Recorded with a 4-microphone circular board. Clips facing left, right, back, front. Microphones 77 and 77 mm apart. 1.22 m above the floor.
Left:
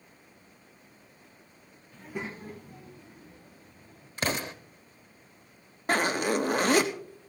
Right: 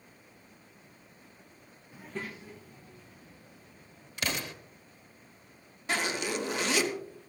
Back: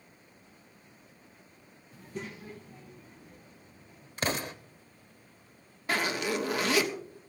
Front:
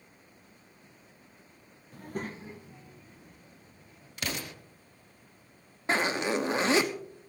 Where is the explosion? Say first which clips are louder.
Left 4 dB, back 5 dB; 135° left, 1.0 m.